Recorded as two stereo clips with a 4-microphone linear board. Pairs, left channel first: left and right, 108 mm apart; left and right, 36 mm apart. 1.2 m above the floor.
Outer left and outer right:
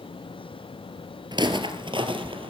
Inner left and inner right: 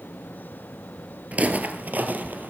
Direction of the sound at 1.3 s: 45° right (ahead or behind).